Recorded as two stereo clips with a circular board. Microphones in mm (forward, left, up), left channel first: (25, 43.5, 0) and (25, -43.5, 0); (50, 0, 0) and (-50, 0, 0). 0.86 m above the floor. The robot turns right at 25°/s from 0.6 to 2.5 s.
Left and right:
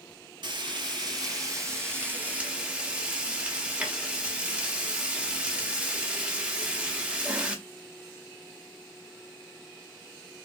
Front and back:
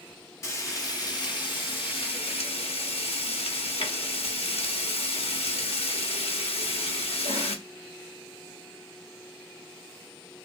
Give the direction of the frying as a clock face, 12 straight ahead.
2 o'clock.